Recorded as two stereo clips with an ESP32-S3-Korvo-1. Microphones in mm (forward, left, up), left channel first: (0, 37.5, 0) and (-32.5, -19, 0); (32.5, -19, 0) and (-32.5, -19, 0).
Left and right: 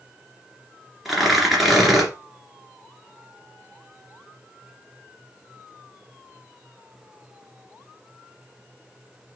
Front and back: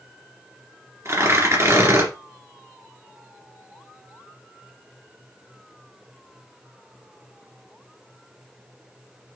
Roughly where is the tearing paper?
Behind left.